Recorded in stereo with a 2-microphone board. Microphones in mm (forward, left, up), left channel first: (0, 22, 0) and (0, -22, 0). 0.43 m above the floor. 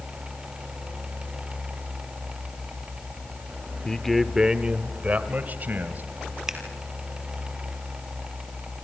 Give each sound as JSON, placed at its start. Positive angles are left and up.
{"t": 3.9, "sound": "a man speaking", "side_deg": 20, "distance_m": 0.9}
{"t": 6.5, "sound": "scissors", "side_deg": -10, "distance_m": 2.5}